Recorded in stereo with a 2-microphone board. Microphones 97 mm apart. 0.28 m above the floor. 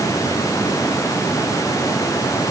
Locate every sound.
Only background noise.